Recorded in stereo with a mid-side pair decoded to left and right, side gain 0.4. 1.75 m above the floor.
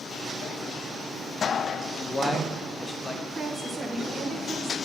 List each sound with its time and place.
2.0 s a man speaking: 25° left, 1.0 m
3.3 s a woman speaking: 40° right, 1.7 m